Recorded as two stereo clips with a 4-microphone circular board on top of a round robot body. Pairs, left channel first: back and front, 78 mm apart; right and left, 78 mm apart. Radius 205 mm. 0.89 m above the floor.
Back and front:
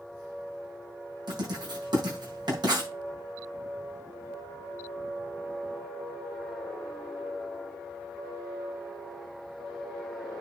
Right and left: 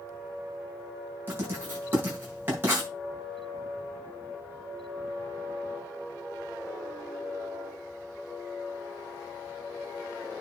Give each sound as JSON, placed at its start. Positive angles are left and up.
{"t": 1.3, "sound": "writing", "azimuth_deg": 25, "distance_m": 6.0}